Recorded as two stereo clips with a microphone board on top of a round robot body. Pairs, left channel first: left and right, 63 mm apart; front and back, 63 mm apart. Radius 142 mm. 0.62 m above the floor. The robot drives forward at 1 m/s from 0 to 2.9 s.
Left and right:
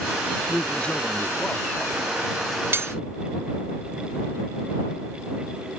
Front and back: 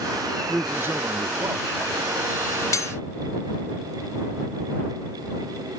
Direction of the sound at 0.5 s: 135° left.